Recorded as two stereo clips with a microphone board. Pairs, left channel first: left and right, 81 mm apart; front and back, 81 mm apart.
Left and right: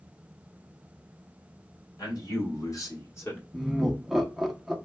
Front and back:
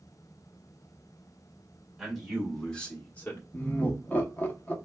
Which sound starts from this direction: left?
A man speaking, at 2.0 s.